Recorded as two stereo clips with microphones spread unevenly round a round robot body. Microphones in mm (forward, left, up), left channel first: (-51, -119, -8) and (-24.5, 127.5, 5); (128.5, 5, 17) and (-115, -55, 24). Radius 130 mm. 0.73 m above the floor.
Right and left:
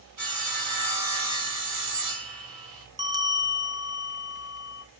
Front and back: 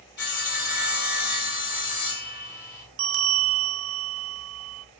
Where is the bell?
155° left, 0.7 m.